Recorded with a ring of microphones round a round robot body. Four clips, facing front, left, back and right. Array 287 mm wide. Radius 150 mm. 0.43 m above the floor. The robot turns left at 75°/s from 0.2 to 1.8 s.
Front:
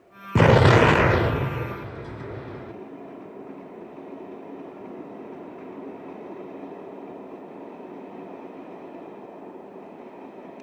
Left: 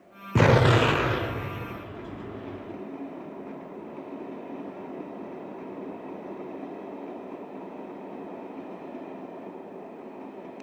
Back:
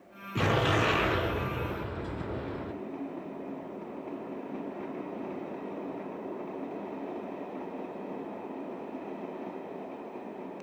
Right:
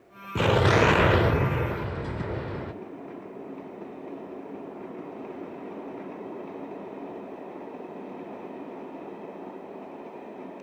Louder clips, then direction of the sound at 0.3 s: Left 1 dB, front 11 dB; 20° left.